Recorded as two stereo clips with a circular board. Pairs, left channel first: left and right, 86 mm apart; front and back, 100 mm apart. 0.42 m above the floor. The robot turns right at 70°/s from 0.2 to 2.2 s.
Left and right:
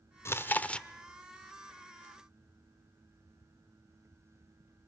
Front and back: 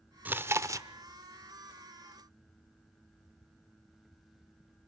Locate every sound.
0.2 s chewing: 120° left, 0.6 m; by 0.9 s 165° left, 0.6 m